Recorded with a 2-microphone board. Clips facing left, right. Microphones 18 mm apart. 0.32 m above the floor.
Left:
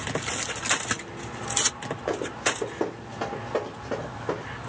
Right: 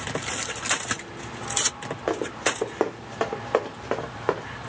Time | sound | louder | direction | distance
2.1 | running footsteps | right 2 dB | 30° right (ahead or behind) | 1.0 m